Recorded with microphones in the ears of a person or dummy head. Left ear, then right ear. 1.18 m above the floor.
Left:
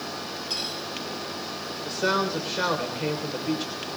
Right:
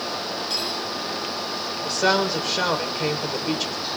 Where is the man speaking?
25° right (ahead or behind), 3.5 m.